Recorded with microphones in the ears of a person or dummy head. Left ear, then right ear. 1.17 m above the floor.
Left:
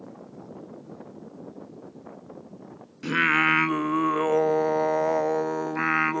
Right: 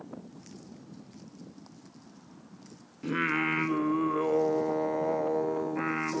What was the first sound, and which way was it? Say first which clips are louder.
Singing: left 8 dB; 40° left (ahead or behind).